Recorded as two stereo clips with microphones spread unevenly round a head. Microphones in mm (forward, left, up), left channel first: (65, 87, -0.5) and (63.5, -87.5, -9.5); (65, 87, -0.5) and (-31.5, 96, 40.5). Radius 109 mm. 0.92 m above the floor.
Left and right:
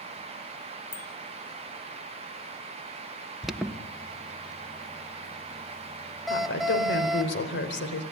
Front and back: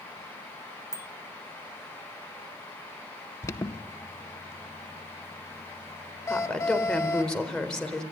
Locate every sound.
0.9 s a bicycle bell: 50° left, 2.5 m
3.4 s an alarm: 5° right, 1.3 m
6.3 s a woman speaking: 75° left, 4 m